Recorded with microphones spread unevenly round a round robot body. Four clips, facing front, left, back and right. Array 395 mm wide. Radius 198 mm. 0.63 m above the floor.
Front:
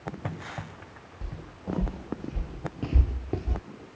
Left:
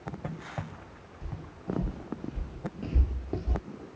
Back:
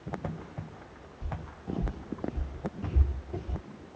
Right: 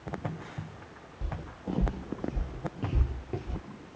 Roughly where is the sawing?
No sawing in this recording.